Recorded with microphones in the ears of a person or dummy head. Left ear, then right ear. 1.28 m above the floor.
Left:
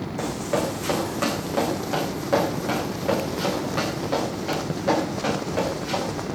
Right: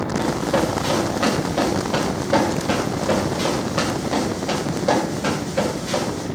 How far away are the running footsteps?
About 6 m.